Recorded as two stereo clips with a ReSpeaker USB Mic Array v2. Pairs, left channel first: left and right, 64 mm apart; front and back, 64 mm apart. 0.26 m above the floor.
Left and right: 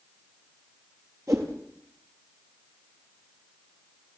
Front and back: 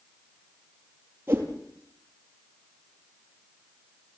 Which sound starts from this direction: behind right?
A whoosh, at 1.3 s.